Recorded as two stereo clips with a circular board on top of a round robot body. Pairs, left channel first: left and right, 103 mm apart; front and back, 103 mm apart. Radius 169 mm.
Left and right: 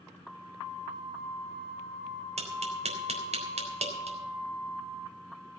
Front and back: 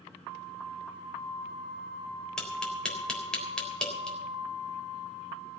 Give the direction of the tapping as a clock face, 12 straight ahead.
3 o'clock.